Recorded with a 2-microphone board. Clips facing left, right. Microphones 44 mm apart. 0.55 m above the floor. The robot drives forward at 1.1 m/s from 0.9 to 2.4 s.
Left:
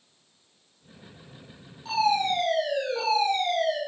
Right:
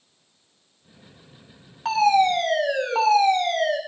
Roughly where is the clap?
No clap in this recording.